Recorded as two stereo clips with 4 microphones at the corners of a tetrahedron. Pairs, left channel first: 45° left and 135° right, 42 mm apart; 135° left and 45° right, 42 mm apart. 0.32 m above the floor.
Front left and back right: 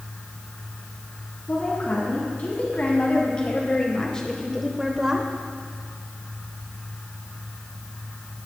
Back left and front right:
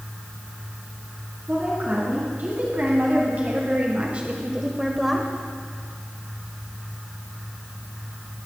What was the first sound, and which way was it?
A woman speaking, straight ahead.